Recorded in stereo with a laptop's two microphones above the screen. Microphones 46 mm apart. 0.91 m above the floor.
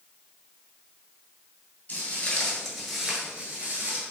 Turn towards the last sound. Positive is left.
turn(degrees=-45)  # may be behind; listen again after turning